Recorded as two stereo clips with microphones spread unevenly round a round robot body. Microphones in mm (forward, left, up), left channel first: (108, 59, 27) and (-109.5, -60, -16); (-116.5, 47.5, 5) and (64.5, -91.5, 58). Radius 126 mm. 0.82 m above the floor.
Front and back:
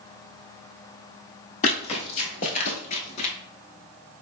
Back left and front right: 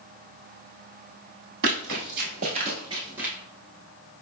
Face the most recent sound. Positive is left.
turn(degrees=25)